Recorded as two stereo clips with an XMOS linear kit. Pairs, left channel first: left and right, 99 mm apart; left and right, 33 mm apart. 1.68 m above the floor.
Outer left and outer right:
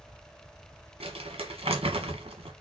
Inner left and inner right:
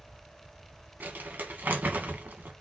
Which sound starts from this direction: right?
Crumpling, at 1.0 s.